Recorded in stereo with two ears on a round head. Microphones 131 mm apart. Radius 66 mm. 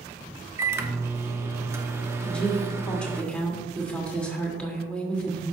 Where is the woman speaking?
10° left (ahead or behind), 2.0 m.